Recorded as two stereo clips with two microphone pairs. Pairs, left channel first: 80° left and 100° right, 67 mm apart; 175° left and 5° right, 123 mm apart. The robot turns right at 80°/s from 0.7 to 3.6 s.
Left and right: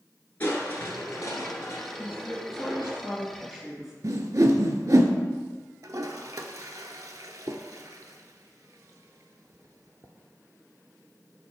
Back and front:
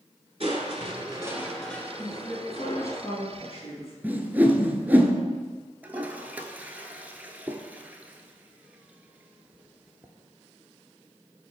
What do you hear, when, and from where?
0.4 s crushing: 15° left, 1.2 m; by 3.0 s 160° right, 1.2 m
2.0 s a woman speaking: 45° left, 2.5 m; by 3.9 s 175° left, 2.5 m
4.0 s a whoosh: 80° right, 0.6 m
5.8 s a toilet flushing: 85° right, 0.6 m